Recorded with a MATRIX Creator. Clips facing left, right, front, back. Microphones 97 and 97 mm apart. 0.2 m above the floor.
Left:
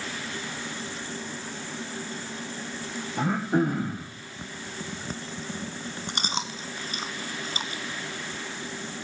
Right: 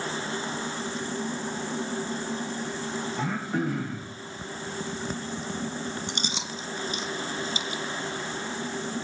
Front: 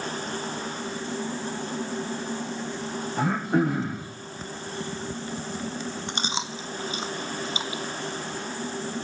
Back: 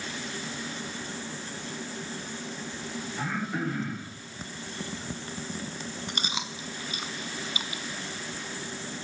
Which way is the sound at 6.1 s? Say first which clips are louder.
Left 2 dB, front 4 dB; 55° left.